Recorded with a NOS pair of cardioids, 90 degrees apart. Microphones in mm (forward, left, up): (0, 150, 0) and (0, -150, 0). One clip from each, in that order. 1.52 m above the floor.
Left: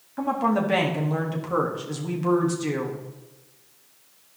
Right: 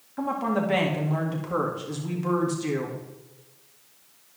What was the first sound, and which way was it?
A woman speaking, 15° left.